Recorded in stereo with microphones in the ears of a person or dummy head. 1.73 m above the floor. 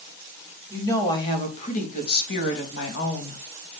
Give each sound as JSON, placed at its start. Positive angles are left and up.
{"t": 0.7, "sound": "a woman speaking", "side_deg": 20, "distance_m": 3.5}